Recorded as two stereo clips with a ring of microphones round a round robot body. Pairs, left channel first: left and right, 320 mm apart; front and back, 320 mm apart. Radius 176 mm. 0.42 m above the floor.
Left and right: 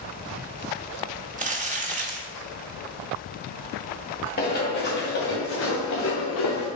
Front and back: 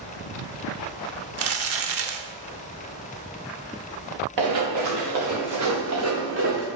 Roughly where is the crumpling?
Behind right.